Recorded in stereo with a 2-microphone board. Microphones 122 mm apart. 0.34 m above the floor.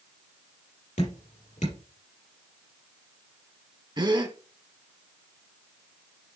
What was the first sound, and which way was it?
Dripping, 80° left.